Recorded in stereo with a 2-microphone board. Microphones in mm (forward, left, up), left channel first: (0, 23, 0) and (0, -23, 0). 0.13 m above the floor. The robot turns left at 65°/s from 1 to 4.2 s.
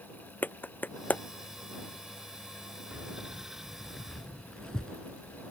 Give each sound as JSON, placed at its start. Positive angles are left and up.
{"t": 0.4, "sound": "a clap", "side_deg": 45}
{"t": 2.9, "sound": "keys jangling", "side_deg": -35}